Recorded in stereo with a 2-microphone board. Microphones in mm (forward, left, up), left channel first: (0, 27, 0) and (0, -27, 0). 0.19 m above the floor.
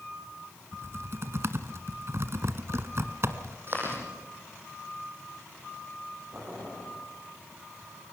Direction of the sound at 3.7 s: 45° right (ahead or behind).